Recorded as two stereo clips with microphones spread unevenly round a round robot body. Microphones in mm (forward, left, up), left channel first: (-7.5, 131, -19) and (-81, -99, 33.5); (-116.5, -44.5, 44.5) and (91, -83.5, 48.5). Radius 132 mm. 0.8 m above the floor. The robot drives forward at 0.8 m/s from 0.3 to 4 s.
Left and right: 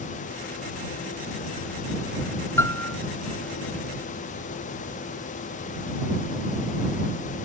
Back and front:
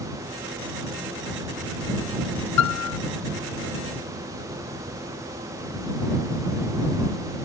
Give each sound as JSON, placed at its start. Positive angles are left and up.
{"t": 2.6, "sound": "a piano", "azimuth_deg": 155}